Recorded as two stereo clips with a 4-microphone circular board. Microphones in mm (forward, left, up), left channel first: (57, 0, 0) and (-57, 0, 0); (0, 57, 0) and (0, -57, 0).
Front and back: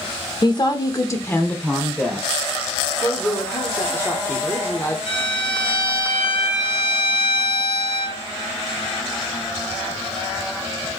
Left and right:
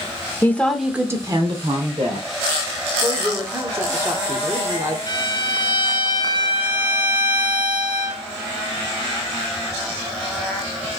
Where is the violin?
40° left, 1.9 m.